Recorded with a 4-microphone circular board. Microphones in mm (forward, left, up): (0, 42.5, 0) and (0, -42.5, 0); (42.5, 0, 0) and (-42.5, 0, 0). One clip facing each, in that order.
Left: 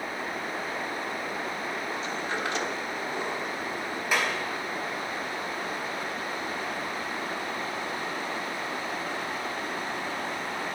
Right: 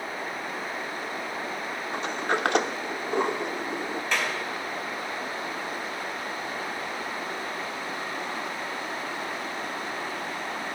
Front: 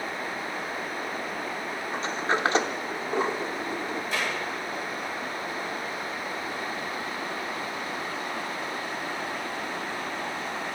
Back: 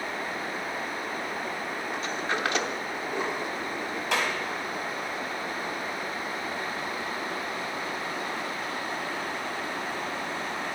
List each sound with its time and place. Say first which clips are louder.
1.9 s a sliding door: right 4 dB, front 5 dB; 60° right, 0.8 m
4.1 s a clap: left 2 dB, back 4 dB; 170° left, 4 m